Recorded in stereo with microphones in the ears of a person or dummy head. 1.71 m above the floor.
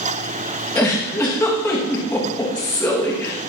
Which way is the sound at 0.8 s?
15° left (ahead or behind).